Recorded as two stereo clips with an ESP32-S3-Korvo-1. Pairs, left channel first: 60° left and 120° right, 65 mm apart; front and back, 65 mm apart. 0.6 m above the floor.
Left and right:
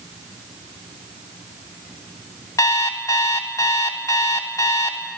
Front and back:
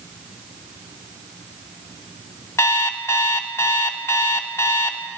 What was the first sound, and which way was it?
An alarm clock, 40° left.